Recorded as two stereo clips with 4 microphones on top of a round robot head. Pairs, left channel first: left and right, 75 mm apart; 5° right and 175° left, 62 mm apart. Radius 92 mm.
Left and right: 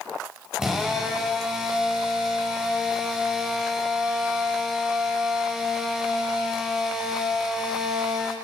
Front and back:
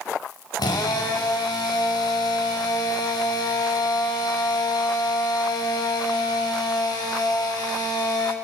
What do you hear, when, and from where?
0.6 s a drill: 10° right, 4 m